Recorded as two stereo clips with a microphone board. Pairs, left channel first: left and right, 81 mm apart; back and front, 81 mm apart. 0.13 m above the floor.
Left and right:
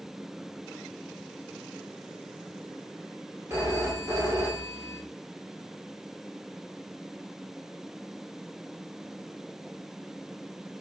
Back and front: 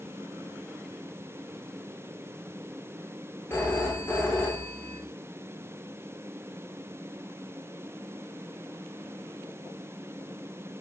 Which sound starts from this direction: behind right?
A phone ringing, at 3.5 s.